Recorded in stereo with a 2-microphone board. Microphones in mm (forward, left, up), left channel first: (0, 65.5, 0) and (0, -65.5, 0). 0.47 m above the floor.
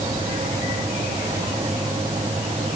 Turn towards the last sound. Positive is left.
No sound to turn to.